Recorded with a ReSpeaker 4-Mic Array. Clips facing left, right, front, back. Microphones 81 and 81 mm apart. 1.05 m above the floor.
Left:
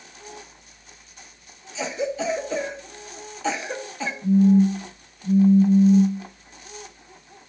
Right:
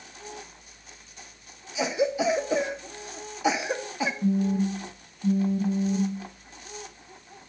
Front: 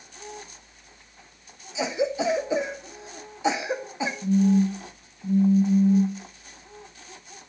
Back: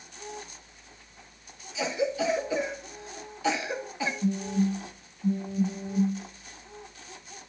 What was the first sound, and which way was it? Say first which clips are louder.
A cough: right 2 dB, front 2 dB; 30° right.